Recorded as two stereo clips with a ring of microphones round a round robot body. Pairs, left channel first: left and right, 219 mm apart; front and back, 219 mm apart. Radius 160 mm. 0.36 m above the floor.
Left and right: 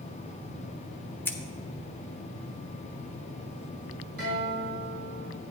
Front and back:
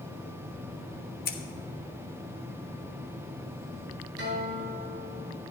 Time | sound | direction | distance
1.2 | scissors | 15° left | 1.8 m
4.2 | a guitar | 145° right | 5 m